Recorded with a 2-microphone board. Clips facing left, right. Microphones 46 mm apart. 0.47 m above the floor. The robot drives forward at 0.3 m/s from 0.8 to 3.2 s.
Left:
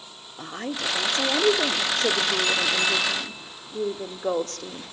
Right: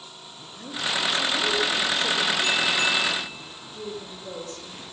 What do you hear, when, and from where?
0.4 s a woman speaking: 55° left (ahead or behind), 1.8 m; by 4.9 s 65° left (ahead or behind), 1.7 m